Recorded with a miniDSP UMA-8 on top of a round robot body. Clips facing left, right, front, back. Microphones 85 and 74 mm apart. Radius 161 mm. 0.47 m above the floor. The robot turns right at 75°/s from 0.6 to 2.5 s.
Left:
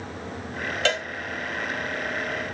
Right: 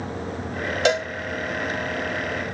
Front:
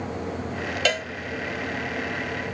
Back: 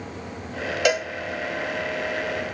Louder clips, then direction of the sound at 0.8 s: Right 5 dB, back 4 dB; 130° right.